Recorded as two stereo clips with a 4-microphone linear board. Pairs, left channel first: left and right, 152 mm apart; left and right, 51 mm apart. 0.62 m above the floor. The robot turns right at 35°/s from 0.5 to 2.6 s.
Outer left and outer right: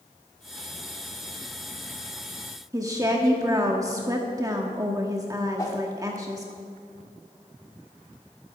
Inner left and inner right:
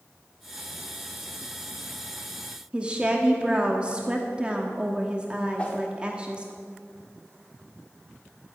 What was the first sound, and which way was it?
A woman speaking, 25° right (ahead or behind).